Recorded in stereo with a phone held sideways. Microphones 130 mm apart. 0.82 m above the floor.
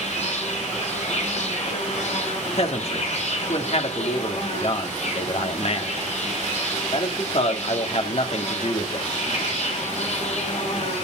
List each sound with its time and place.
0.0 s an insect: 70° left (ahead or behind), 4.5 m
2.5 s a man speaking: 60° left (ahead or behind), 2 m